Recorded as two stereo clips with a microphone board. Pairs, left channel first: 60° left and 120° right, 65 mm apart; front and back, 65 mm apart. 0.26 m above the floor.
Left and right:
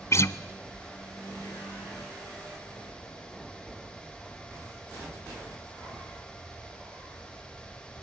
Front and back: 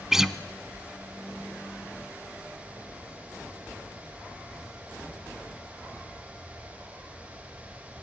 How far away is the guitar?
About 0.9 m.